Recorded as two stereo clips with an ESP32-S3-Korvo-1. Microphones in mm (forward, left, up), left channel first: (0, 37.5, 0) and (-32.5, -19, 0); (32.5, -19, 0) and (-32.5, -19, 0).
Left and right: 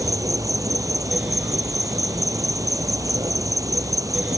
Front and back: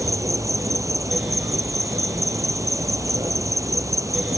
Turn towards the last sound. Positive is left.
turn(degrees=-145)